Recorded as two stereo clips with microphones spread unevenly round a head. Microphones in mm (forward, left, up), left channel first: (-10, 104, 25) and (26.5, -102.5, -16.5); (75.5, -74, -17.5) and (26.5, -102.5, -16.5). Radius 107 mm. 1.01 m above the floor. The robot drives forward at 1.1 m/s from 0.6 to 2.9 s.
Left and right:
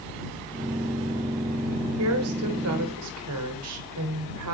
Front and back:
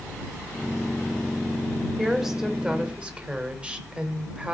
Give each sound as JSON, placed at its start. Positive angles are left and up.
{"t": 2.0, "sound": "a woman speaking", "azimuth_deg": -65, "distance_m": 3.5}